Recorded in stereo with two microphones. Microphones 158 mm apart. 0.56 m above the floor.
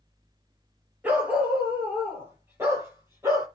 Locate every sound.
1.0 s a dog barking: 10° right (ahead or behind), 5 m; by 3.5 s 15° right (ahead or behind), 6 m